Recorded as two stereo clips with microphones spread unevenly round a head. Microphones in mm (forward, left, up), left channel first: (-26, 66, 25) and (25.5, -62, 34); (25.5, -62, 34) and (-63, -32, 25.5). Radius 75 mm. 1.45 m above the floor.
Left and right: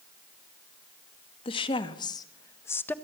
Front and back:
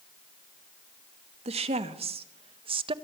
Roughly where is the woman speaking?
Behind.